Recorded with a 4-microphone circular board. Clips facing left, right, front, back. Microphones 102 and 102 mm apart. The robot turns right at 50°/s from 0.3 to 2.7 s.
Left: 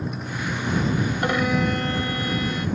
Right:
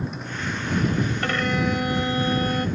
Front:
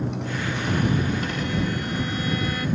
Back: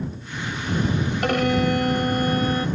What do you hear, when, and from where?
0.0 s a motorcycle: 5° left; by 2.8 s 125° left
1.2 s a violin: 160° left; by 2.7 s 125° right